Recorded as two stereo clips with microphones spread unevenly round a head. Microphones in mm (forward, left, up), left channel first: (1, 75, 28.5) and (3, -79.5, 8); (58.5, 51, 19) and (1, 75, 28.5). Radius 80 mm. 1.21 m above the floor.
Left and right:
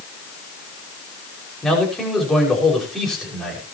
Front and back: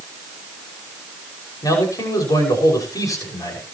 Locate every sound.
1.6 s a man speaking: straight ahead, 6 m